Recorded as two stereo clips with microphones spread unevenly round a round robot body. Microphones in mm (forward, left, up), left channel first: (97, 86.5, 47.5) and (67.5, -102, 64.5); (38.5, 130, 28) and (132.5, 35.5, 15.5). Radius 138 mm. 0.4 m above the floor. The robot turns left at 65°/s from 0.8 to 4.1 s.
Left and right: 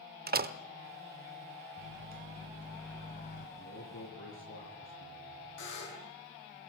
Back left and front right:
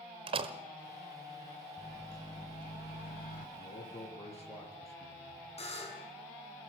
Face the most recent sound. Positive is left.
turn(degrees=95)